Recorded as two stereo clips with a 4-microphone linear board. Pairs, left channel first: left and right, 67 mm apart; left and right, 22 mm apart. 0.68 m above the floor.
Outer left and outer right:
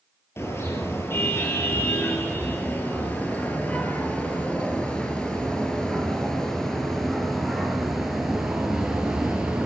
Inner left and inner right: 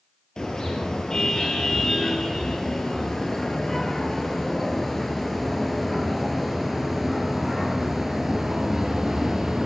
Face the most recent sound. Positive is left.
turn(degrees=-10)  # may be behind; listen again after turning